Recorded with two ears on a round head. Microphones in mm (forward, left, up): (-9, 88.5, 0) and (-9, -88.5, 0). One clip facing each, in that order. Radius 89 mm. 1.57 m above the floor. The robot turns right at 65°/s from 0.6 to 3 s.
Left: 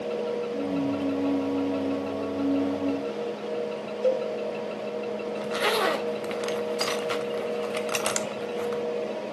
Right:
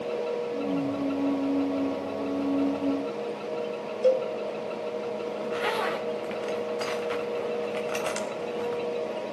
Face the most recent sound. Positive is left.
turn(degrees=55)  # may be behind; listen again after turning